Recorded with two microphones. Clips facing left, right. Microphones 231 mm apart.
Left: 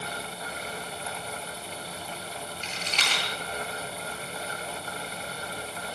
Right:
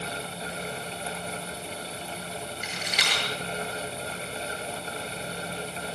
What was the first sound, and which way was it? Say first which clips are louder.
A rattle: right 1 dB; 10° right (ahead or behind).